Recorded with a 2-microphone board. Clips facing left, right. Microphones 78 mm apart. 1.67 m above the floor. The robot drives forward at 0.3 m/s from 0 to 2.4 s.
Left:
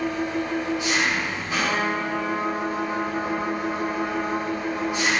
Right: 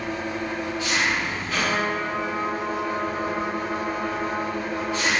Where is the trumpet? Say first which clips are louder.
Even; 10° right (ahead or behind), 1.0 m; by 5.1 s 5° right (ahead or behind), 1.2 m.